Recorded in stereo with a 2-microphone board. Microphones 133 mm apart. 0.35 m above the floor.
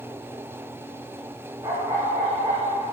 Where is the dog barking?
25° right (ahead or behind), 8 m.